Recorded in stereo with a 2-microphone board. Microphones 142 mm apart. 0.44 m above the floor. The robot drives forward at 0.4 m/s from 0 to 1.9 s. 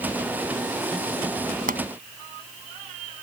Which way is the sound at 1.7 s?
75° right (ahead or behind).